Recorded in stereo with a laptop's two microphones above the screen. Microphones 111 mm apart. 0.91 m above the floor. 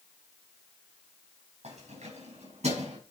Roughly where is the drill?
No drill in this recording.